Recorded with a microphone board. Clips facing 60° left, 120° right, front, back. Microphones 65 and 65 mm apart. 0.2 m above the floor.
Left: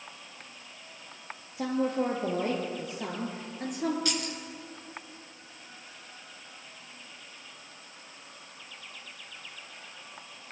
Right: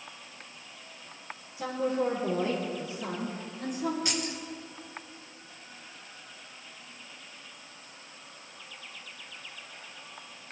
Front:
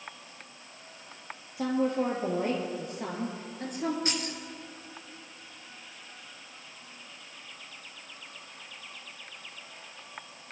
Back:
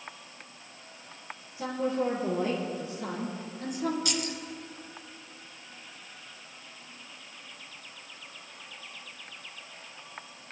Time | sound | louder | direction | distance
1.6 | a woman speaking | left 1 dB, front 2 dB | 30° left | 4 m
4.0 | keys jangling | left 1 dB, back 1 dB | 55° right | 2 m